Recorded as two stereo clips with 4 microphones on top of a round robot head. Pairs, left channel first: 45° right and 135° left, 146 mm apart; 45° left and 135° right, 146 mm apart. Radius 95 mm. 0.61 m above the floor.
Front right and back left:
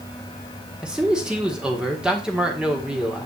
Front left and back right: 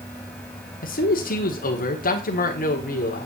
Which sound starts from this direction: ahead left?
A man speaking, at 0.8 s.